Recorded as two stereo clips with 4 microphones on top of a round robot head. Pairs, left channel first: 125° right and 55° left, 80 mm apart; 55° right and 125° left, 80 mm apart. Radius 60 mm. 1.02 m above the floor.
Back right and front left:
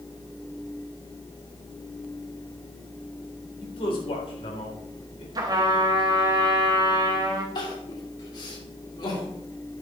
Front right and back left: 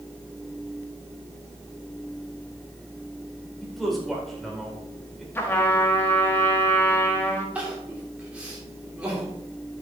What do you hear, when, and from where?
3.6 s a man speaking: 145° right, 3 m
5.3 s a trumpet: 10° left, 1.5 m
7.5 s crying: 160° right, 3 m